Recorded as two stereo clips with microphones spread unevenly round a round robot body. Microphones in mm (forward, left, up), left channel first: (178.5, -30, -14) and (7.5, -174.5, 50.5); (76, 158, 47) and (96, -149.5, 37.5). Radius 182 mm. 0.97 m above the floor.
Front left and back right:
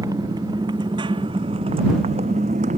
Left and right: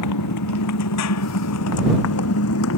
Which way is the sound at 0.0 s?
140° left.